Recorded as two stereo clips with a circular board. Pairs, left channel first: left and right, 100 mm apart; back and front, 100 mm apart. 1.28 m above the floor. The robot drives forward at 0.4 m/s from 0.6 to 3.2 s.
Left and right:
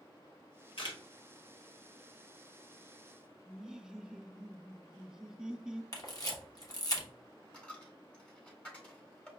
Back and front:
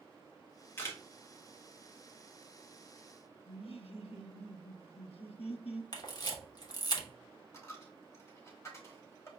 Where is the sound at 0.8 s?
115° left, 1.1 m; by 1.0 s 120° left, 1.2 m.